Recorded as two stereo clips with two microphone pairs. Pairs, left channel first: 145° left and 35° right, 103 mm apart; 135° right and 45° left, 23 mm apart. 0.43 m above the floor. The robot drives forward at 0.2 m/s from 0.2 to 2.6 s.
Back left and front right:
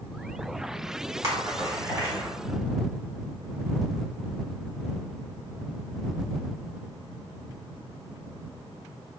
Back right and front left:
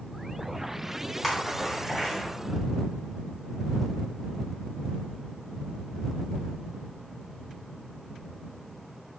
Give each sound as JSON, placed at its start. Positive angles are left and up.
{"t": 1.2, "sound": "a splash", "azimuth_deg": -70, "distance_m": 0.9}